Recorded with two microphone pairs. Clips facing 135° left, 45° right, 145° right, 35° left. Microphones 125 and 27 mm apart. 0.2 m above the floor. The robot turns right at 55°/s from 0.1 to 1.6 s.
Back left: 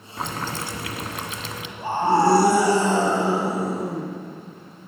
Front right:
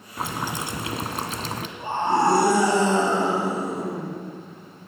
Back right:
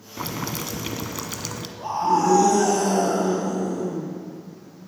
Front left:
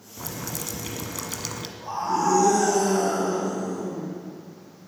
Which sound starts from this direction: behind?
A scream, at 1.8 s.